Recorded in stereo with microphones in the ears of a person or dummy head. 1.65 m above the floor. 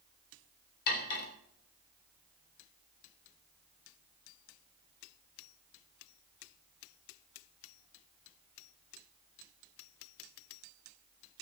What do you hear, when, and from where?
0.9 s cutlery clinking: 50° left (ahead or behind), 2.5 m